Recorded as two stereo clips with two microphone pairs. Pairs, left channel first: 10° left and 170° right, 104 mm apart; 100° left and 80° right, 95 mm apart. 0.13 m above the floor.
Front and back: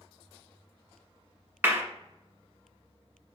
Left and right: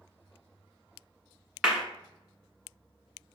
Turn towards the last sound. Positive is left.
turn(degrees=-160)